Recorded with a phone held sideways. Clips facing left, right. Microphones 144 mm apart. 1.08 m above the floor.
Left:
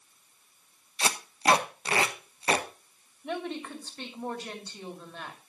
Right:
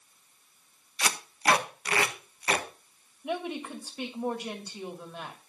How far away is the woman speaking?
About 2.5 m.